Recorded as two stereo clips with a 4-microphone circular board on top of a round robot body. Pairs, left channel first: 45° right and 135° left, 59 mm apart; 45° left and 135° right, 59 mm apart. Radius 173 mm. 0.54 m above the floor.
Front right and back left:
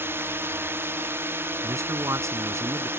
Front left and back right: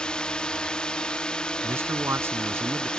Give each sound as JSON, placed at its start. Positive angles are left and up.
{"t": 0.0, "sound": "a drone", "azimuth_deg": 115}
{"t": 1.6, "sound": "a man speaking", "azimuth_deg": 175}